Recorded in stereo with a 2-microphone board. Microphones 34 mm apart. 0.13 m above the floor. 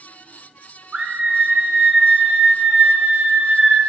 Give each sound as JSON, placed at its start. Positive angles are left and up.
{"t": 0.9, "sound": "a scream", "side_deg": -30, "distance_m": 1.3}